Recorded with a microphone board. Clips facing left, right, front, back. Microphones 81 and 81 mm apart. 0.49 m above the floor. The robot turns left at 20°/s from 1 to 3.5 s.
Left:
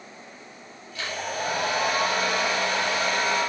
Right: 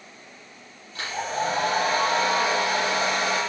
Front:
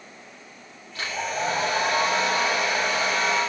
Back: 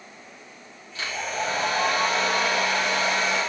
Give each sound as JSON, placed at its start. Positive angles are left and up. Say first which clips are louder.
{"t": 0.9, "sound": "a hair dryer", "louder": "right 3 dB, front 1 dB", "azimuth_deg": -40, "distance_m": 7.5}